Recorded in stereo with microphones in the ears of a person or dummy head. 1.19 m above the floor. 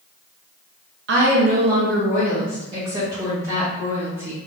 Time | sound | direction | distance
1.1 | a woman speaking | 55° right (ahead or behind) | 0.9 m